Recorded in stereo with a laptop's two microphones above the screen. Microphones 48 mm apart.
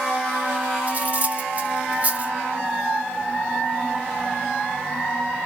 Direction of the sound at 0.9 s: 35° right (ahead or behind).